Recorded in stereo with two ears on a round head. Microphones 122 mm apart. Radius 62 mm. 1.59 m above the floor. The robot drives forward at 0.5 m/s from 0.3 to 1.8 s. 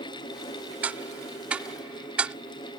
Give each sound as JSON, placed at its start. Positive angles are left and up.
{"t": 0.8, "sound": "ticking", "side_deg": -10}